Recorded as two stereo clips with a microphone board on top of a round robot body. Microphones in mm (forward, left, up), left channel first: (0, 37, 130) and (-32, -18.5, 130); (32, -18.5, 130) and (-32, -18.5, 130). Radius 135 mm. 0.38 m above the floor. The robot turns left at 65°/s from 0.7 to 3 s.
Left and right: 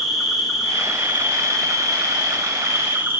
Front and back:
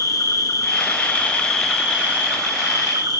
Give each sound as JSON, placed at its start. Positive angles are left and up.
{"t": 0.0, "sound": "an insect", "azimuth_deg": -30, "distance_m": 9.0}